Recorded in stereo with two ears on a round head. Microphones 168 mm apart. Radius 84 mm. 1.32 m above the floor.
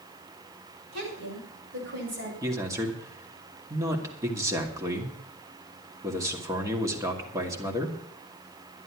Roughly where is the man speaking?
Centre.